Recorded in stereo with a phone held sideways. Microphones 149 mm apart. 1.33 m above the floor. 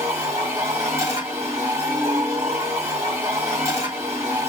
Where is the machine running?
20° right (ahead or behind), 1.2 m.